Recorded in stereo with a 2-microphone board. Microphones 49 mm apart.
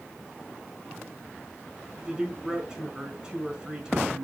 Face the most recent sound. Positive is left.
turn(degrees=-20)  # may be behind; listen again after turning